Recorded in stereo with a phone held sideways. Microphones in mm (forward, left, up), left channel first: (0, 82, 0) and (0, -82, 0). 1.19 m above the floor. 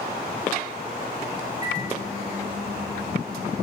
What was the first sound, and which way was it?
A microwave, 25° right (ahead or behind).